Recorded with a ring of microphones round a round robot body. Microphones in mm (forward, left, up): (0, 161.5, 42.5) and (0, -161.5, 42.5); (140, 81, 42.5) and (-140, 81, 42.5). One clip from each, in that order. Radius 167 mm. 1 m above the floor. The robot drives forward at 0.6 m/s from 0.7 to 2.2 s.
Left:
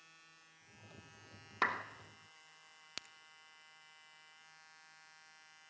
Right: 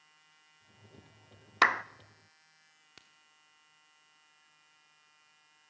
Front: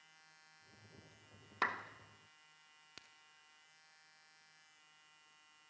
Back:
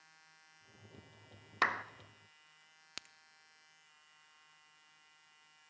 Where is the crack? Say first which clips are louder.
Left 11 dB, back 10 dB; 140° left, 0.7 m.